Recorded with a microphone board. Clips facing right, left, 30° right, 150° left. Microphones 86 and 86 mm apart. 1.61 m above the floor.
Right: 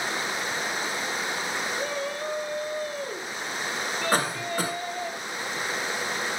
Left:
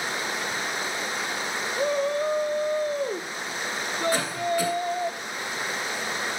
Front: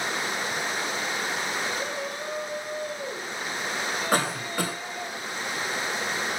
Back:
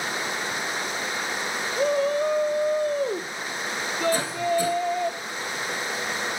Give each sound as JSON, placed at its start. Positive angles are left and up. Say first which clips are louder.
{"t": 1.8, "sound": "a shout", "louder": "left 6 dB, back 10 dB", "azimuth_deg": 150, "distance_m": 0.8}
{"t": 4.1, "sound": "a cough", "louder": "right 1 dB, back 1 dB", "azimuth_deg": -40, "distance_m": 3.5}